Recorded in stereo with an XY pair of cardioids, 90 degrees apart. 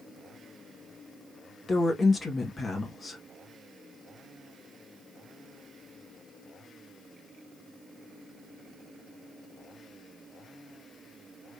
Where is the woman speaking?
45° left, 1.7 m.